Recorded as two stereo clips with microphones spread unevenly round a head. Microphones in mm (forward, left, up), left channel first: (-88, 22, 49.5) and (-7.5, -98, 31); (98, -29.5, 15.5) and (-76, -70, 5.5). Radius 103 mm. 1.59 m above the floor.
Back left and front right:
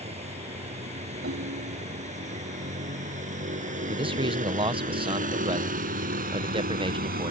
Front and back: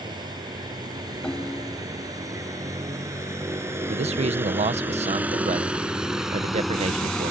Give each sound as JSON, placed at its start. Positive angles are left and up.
{"t": 0.0, "sound": "a vehicle", "azimuth_deg": -100}
{"t": 1.2, "sound": "a ringtone", "azimuth_deg": -70}
{"t": 3.9, "sound": "a man speaking", "azimuth_deg": -110}